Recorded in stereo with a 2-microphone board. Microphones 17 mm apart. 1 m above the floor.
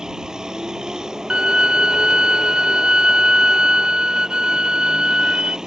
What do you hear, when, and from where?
0.0 s a vehicle: 40° right (ahead or behind)
1.3 s a violin: 55° right (ahead or behind)